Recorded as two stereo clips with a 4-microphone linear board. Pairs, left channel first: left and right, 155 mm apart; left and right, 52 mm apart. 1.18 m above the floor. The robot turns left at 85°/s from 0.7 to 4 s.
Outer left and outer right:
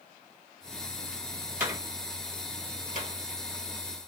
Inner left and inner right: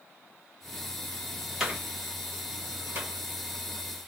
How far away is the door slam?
About 2 m.